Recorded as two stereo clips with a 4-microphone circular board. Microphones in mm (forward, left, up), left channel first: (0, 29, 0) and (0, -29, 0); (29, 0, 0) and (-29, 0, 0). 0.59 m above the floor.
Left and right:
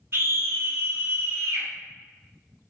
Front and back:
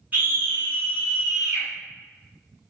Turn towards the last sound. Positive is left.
turn(degrees=-125)